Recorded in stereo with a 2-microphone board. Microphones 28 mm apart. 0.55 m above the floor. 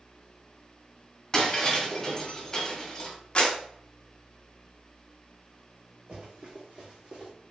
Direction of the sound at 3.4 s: 40° left (ahead or behind).